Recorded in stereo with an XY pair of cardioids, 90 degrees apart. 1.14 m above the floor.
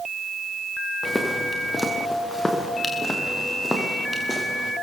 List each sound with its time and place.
1.0 s footsteps: 15° left, 5.5 m; by 4.7 s 10° left, 7.5 m